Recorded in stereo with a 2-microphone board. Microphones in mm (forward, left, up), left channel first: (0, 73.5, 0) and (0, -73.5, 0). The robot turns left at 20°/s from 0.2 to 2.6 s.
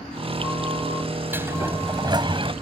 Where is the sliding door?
15° right (ahead or behind); by 2.5 s 35° right (ahead or behind).